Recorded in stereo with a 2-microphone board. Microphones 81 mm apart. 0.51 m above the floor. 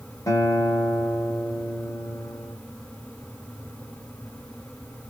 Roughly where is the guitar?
Left.